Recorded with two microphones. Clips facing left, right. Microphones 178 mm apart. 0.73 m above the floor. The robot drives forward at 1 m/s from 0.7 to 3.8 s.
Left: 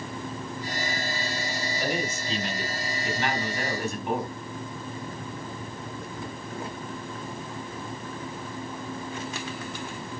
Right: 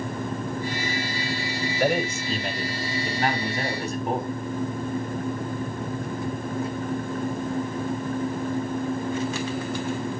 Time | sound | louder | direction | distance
1.8 | a man speaking | right 7 dB | 60° right (ahead or behind) | 3 m